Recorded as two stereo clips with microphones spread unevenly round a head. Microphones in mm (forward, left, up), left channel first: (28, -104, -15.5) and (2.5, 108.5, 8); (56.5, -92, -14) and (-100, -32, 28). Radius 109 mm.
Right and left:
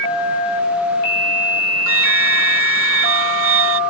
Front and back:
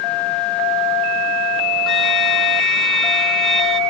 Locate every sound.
1.9 s a flute: 70° left